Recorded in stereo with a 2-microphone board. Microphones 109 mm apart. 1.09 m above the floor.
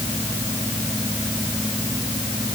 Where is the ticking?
I don't hear ticking.